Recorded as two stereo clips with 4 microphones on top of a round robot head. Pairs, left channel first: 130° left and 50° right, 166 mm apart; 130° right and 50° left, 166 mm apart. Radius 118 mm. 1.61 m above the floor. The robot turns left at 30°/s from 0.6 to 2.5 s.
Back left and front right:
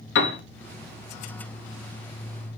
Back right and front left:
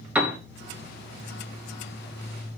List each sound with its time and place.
0.1 s a piano: 130° left, 1.0 m